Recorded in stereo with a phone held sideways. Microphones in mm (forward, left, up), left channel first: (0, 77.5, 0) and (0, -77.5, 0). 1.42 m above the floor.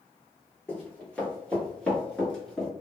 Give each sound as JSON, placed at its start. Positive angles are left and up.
{"t": 0.7, "sound": "running footsteps", "side_deg": 10, "distance_m": 1.9}